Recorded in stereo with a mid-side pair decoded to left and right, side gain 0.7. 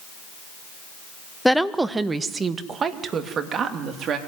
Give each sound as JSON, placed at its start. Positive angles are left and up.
{"t": 1.4, "sound": "a woman speaking", "azimuth_deg": 0, "distance_m": 1.0}